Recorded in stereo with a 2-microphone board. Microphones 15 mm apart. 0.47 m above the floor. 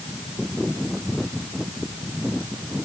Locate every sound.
Only background noise.